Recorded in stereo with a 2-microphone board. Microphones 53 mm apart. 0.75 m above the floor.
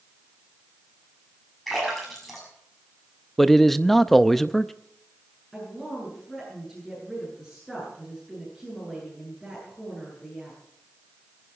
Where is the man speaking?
5° left (ahead or behind), 0.5 m.